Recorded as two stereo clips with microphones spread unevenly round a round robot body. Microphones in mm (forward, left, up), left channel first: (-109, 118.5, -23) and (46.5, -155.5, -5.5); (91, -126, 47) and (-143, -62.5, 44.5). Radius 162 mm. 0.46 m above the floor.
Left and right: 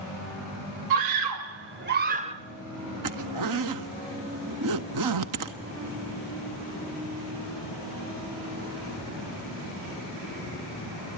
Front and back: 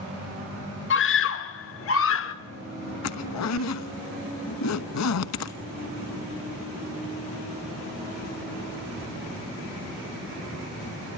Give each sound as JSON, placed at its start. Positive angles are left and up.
{"t": 0.9, "sound": "a scream", "azimuth_deg": -45, "distance_m": 1.2}
{"t": 3.0, "sound": "a zipper", "azimuth_deg": -25, "distance_m": 1.2}